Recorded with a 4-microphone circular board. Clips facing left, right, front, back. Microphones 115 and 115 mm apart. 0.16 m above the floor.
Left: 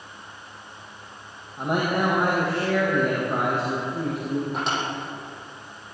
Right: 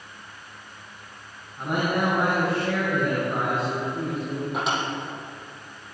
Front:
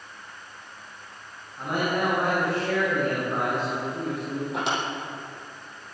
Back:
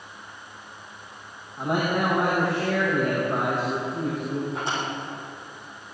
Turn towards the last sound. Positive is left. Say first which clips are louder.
# even, front 1 dB
turn(degrees=-5)